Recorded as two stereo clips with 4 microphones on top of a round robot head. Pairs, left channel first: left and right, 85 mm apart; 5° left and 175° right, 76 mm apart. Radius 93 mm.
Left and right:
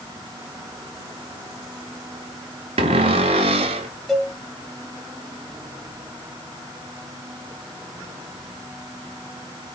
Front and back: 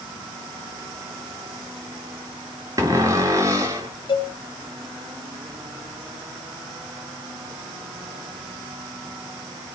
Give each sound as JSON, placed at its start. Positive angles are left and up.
{"t": 2.8, "sound": "a cupboard door", "azimuth_deg": -115, "distance_m": 1.1}
{"t": 4.1, "sound": "a cowbell", "azimuth_deg": 0, "distance_m": 3.0}